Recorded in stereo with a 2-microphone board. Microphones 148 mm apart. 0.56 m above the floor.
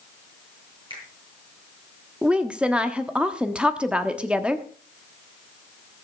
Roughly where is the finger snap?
Right.